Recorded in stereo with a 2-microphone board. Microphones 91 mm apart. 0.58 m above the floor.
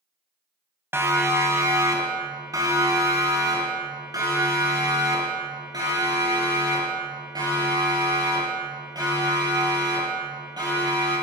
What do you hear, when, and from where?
0.9 s a siren: 30° right (ahead or behind), 4 m; by 11.1 s 50° right (ahead or behind), 16 m